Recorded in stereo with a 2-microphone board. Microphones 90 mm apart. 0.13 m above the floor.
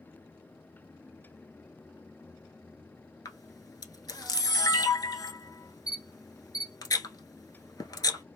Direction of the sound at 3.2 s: 45° left (ahead or behind).